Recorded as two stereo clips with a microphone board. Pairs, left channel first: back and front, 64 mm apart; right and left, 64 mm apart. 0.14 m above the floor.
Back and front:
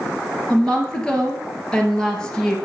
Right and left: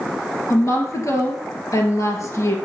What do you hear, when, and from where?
0.5 s a woman speaking: 105° right, 2.5 m